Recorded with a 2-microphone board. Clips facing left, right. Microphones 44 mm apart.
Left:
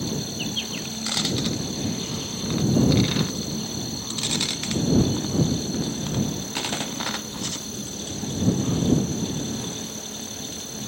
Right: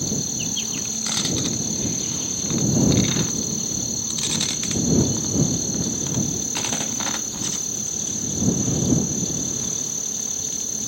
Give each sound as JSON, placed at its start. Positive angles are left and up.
{"t": 0.0, "sound": "an insect", "side_deg": 10}